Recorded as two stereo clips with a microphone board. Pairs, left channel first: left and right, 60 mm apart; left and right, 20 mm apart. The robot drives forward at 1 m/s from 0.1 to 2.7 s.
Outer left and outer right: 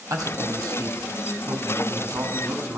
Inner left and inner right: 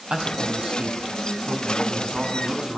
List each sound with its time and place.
0.1 s a man speaking: 70° right (ahead or behind), 3 m; by 2.8 s 45° right (ahead or behind), 4 m